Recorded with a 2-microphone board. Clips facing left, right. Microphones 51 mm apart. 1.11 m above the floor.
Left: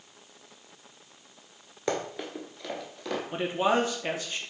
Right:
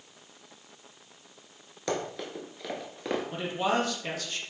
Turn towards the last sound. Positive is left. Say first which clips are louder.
# left 5 dB
turn(degrees=25)  # may be behind; listen again after turning